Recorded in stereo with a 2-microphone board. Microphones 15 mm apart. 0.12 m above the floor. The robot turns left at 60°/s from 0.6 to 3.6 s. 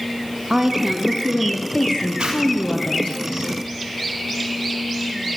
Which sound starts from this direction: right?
A zipper, at 2.2 s.